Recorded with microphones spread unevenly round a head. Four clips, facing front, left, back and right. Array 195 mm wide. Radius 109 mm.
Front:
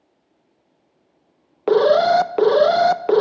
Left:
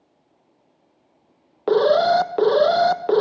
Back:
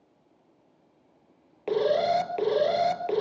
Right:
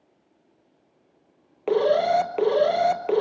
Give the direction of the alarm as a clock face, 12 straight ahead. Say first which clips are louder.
Left 4 dB, front 10 dB; 11 o'clock.